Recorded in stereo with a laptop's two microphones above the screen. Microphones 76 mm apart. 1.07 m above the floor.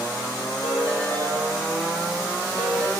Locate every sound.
0.6 s a ringtone: 65° left (ahead or behind), 2.5 m